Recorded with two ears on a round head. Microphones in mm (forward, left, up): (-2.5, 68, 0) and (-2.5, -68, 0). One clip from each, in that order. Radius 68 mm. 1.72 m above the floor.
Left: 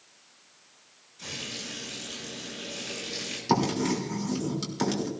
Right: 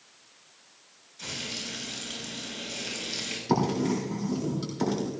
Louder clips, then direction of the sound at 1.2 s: Right 2 dB; 20° right (ahead or behind).